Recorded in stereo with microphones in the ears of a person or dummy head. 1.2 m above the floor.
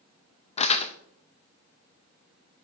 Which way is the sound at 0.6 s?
35° left (ahead or behind).